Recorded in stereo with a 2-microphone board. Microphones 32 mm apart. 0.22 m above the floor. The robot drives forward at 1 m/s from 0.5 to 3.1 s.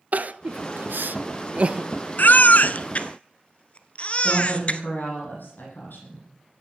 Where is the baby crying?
65° left (ahead or behind), 0.8 m; by 4.8 s 40° left (ahead or behind), 1.2 m.